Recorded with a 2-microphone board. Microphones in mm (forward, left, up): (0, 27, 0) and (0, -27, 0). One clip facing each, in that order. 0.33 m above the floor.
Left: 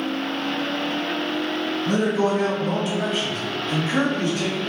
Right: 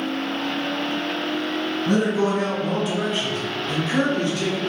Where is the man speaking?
20° right (ahead or behind), 1.6 m; by 4.6 s 30° left (ahead or behind), 1.8 m.